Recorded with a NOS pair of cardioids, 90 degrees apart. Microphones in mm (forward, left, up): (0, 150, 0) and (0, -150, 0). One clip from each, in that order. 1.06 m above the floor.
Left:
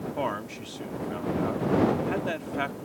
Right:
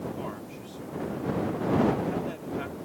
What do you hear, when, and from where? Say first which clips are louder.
0.2 s a man speaking: left 7 dB; 65° left